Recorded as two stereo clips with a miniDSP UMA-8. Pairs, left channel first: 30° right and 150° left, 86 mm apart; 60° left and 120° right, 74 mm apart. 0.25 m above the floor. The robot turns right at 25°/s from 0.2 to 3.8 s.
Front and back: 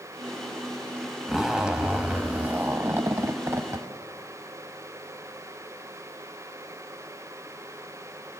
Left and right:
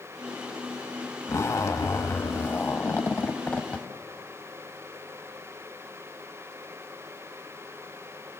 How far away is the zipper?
About 0.8 m.